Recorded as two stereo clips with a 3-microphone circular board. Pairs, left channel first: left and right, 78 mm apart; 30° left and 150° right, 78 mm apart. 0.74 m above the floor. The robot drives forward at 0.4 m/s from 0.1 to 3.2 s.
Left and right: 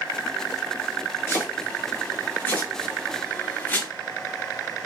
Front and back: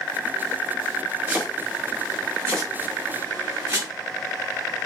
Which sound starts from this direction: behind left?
Chopping, at 1.3 s.